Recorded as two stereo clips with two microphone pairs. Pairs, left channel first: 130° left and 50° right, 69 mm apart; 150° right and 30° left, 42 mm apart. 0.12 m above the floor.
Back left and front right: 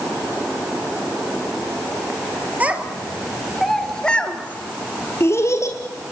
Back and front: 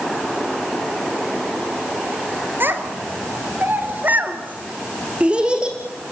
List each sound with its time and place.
2.6 s a child speaking: 15° left, 2 m; by 5.8 s 100° left, 2.5 m